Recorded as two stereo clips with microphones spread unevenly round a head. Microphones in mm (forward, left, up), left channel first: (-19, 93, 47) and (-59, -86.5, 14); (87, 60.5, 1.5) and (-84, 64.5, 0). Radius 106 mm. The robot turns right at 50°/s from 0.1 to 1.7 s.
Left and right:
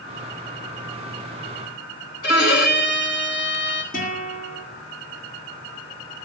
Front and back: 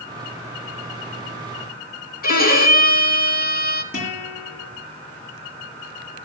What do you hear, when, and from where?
2.2 s a violin: 30° left, 2.5 m
3.9 s a guitar: 25° left, 7.5 m